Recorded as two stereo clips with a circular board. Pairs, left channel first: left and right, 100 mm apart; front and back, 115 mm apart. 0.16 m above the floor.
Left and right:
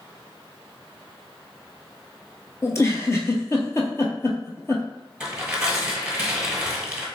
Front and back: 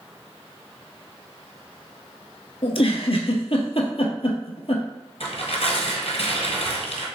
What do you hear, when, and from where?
2.6 s a giggle: 30° left, 0.7 m
5.2 s tearing paper: 10° right, 1.2 m